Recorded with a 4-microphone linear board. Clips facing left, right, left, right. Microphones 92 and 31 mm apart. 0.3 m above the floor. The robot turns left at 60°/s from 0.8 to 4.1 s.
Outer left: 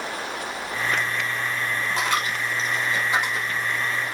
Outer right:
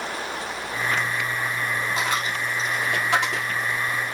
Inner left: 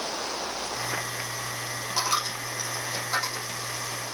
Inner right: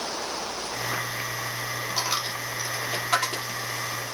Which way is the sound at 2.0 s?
5° right (ahead or behind).